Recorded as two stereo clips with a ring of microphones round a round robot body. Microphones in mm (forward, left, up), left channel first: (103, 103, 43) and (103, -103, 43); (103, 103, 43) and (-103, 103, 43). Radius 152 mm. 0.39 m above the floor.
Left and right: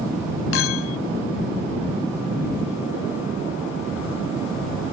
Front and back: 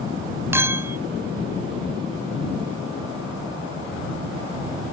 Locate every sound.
0.5 s a clink: 100° left